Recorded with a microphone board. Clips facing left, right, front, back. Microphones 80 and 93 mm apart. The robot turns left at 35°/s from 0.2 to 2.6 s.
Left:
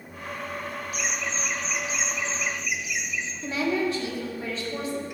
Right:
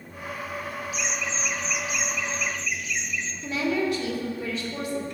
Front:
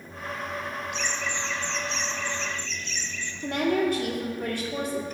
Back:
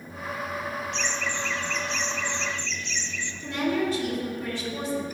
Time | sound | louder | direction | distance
0.9 | laughter | even, back 1 dB | 80° left | 0.7 m
3.4 | a woman speaking | even, front 2 dB | 30° left | 2.0 m